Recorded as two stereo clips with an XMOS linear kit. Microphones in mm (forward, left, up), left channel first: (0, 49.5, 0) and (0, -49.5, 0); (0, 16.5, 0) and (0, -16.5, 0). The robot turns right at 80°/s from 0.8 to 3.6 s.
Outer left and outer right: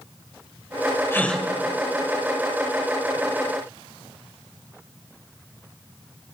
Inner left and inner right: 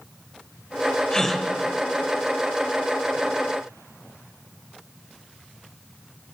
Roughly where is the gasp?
Left.